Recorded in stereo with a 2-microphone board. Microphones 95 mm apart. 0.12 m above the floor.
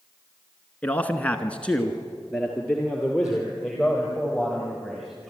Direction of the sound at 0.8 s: 15° left (ahead or behind).